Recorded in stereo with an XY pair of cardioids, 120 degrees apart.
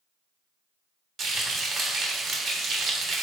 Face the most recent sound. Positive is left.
turn(degrees=-55)